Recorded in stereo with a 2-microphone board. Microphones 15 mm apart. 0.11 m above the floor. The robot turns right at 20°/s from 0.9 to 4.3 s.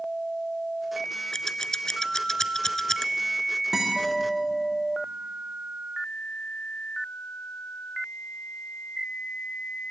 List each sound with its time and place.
1.3 s scissors: 35° left (ahead or behind), 0.9 m; by 3.1 s 30° left (ahead or behind), 0.9 m
3.7 s a guitar: 35° right (ahead or behind), 6 m; by 4.1 s 25° right (ahead or behind), 6 m